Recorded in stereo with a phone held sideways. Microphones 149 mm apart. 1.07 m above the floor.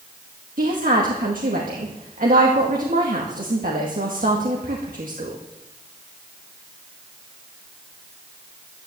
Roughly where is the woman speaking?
Right.